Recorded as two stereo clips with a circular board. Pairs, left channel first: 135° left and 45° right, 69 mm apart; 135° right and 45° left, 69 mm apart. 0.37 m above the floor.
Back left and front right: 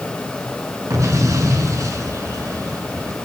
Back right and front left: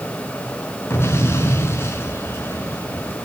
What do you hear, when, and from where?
0.9 s an explosion: 85° right, 5 m